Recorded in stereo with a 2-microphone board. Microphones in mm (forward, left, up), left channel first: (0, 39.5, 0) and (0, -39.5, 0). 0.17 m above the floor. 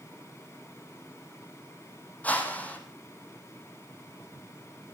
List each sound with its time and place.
2.2 s a whoosh: 20° left (ahead or behind), 2.5 m